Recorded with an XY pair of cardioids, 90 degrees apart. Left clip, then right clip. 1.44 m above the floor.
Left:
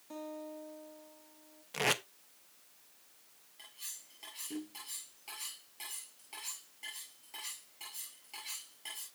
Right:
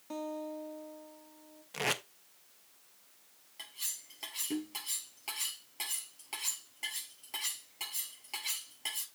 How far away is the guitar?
About 2.5 m.